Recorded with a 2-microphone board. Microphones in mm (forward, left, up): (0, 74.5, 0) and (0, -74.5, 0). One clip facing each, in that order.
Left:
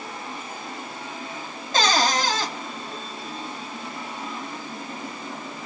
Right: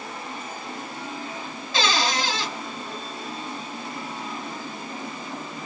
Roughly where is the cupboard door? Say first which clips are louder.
Left 3 dB; left.